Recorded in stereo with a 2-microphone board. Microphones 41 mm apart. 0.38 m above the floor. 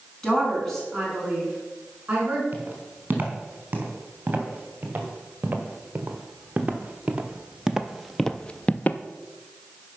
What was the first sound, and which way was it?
A woman speaking, 15° left (ahead or behind).